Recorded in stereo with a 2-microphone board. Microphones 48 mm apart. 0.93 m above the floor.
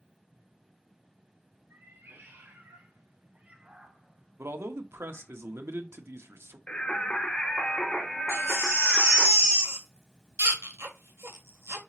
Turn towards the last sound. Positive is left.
turn(degrees=-75)  # may be behind; listen again after turning